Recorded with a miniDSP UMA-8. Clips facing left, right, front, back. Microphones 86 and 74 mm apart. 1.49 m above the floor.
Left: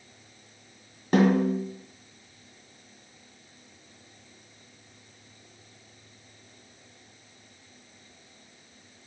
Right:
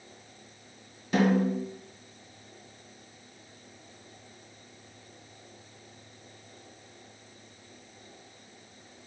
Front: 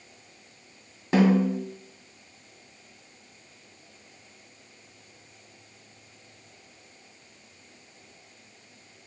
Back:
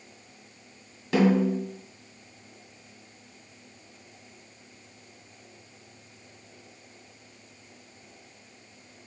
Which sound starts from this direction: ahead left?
A snare drum, at 1.1 s.